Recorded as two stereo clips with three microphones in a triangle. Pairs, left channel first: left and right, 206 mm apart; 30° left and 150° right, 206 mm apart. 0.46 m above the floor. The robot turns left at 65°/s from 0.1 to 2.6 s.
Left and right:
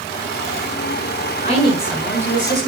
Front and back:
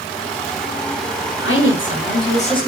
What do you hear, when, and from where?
1.4 s a woman speaking: 40° left, 6 m; by 2.7 s 40° right, 6 m